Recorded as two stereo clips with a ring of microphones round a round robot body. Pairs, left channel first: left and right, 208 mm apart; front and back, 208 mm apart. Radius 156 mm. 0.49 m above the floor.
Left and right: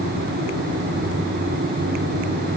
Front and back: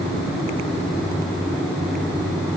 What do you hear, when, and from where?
Only background noise.